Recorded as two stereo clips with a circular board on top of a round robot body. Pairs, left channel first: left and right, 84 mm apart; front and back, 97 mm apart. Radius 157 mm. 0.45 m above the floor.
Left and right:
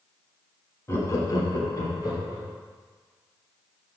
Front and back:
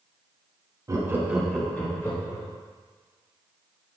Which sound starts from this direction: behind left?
Laughter, at 0.9 s.